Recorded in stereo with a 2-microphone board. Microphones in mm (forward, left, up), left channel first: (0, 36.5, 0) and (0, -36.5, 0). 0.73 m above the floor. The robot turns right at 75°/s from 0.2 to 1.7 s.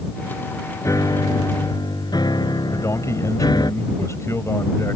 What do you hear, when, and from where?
0.8 s a piano: 35° left; by 3.7 s 105° left
2.7 s a man speaking: 40° left (ahead or behind)